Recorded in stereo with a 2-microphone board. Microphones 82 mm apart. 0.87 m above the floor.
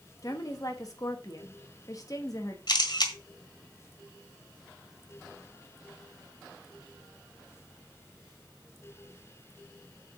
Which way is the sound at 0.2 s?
45° left (ahead or behind).